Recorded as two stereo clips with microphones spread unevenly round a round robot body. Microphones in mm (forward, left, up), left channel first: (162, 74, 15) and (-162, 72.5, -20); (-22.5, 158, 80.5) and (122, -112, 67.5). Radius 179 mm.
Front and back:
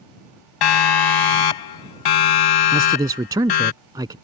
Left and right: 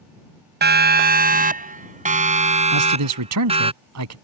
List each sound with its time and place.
0.6 s a siren: 5° right; by 3.7 s 10° left
2.7 s a man speaking: 100° right